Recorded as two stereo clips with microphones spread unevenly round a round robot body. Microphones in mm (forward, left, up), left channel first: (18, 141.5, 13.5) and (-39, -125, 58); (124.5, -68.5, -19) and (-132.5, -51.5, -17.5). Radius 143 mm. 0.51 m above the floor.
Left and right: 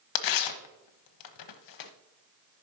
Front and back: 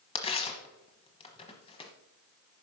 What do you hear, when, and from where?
0.1 s tearing paper: 70° left, 1.0 m